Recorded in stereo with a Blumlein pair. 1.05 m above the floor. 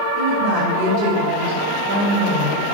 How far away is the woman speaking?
About 4.5 m.